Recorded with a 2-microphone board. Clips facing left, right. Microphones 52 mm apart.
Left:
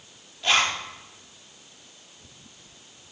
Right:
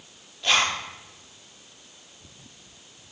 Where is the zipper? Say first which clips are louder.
Even; centre (ahead or behind), 3 m.